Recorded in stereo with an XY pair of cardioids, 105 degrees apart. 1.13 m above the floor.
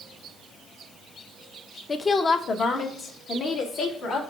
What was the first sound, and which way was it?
A woman speaking, 30° left.